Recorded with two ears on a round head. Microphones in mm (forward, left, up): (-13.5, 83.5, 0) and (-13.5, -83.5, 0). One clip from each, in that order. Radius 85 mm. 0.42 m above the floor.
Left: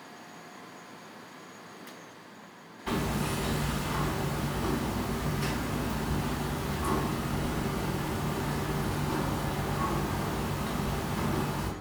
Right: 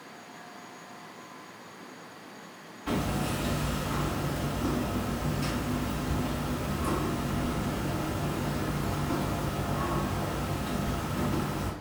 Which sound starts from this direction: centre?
Hammering, at 2.9 s.